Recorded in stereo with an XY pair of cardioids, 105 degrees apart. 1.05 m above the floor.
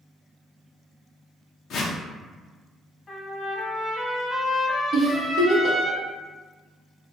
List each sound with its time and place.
1.7 s a whoosh: 65° left, 0.5 m
3.1 s a trumpet: 30° left, 0.9 m
4.9 s a giggle: 60° right, 0.8 m